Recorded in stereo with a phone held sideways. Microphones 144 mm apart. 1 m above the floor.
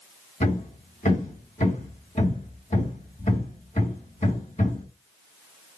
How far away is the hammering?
About 3.5 m.